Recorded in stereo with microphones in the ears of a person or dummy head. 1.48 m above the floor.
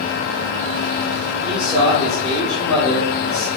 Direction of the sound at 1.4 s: 5° right (ahead or behind).